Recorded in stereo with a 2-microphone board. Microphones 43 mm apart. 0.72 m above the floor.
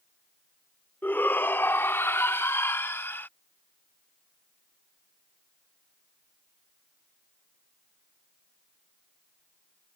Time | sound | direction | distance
1.0 | a shout | 45° left (ahead or behind) | ?